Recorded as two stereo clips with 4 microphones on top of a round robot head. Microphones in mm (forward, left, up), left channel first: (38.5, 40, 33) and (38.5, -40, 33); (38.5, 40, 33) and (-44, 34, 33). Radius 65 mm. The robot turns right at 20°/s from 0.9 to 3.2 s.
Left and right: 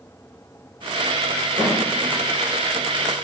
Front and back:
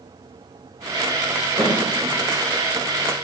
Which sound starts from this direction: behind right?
A snare drum, at 1.6 s.